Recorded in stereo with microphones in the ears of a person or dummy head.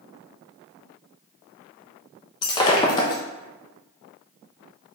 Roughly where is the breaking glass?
Left.